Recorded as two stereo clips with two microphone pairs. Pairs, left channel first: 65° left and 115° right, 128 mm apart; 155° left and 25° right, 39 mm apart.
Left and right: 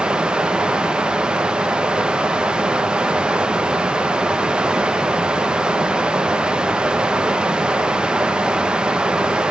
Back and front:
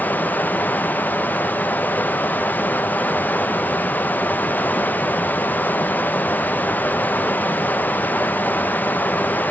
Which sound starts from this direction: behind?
Running water, at 0.0 s.